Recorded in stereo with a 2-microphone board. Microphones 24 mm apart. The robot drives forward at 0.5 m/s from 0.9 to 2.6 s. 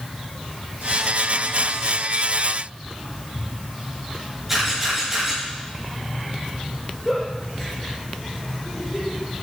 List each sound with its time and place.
4.5 s a camera shutter: 10° right (ahead or behind), 7 m
7.0 s a giggle: 5° left (ahead or behind), 5 m